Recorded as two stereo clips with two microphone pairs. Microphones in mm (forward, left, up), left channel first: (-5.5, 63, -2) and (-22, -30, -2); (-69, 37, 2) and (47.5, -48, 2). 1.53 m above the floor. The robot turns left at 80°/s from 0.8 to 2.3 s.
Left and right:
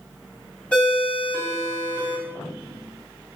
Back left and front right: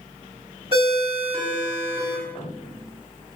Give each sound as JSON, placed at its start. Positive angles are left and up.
{"t": 0.7, "sound": "a ringtone", "azimuth_deg": 10, "distance_m": 1.6}